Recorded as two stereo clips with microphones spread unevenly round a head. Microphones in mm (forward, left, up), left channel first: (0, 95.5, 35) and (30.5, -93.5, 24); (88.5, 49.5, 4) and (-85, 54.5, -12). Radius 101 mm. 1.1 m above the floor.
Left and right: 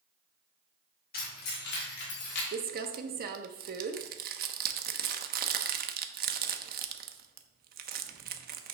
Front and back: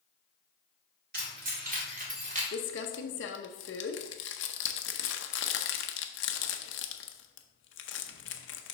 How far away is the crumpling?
About 0.6 m.